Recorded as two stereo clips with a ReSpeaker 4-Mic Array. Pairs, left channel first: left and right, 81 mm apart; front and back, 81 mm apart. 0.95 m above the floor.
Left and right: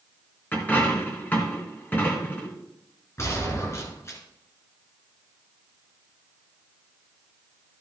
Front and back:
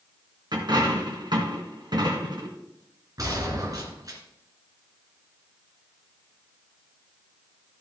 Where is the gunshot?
140° left, 2.5 m.